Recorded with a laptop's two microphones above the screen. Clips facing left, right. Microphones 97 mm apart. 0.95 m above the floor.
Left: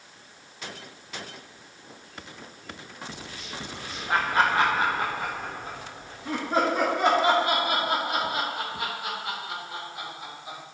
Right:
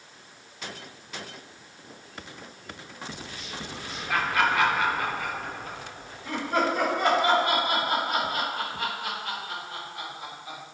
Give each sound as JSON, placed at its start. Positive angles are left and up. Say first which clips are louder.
{"t": 4.1, "sound": "laughter", "louder": "left 2 dB", "side_deg": 30, "distance_m": 1.0}